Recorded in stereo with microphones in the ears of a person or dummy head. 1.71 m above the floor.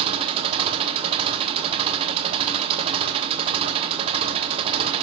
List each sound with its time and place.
0.0 s an engine running: 25° right (ahead or behind), 1.1 m